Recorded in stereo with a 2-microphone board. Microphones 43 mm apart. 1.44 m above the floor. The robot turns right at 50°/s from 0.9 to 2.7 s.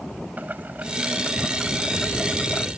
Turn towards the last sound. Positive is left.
turn(degrees=50)